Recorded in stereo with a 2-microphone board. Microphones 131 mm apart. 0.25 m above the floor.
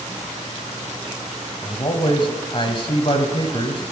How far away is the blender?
No blender in this recording.